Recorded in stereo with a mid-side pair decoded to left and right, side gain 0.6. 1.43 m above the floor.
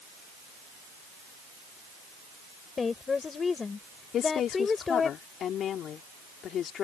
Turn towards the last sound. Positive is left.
turn(degrees=50)